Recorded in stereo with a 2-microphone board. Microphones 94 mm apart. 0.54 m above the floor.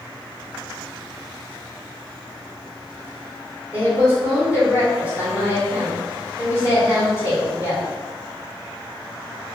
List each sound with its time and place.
3.7 s a woman speaking: 15° right (ahead or behind), 1.8 m